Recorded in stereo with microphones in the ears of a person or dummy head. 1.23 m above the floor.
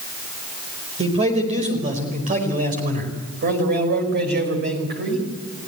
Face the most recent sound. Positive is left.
turn(degrees=-55)  # may be behind; listen again after turning